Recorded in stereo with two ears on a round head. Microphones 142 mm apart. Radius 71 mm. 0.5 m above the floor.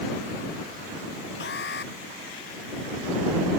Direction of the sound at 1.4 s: 75° left (ahead or behind).